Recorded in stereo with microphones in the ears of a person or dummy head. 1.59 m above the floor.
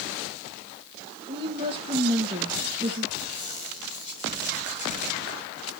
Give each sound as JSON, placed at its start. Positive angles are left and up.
{"t": 1.3, "sound": "a woman speaking", "side_deg": -30, "distance_m": 1.6}
{"t": 3.2, "sound": "a squeak", "side_deg": 40, "distance_m": 4.0}